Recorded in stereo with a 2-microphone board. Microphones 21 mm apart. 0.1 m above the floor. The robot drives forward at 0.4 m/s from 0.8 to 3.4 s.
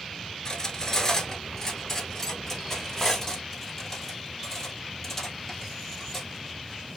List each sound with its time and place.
0.5 s cutlery clinking: 25° left (ahead or behind), 0.7 m; by 6.3 s 10° left (ahead or behind), 1.5 m